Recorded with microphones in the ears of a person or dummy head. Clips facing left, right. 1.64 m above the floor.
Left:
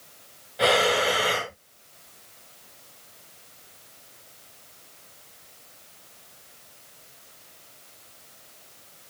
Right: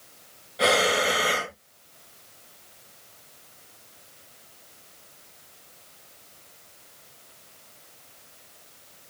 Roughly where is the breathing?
Centre.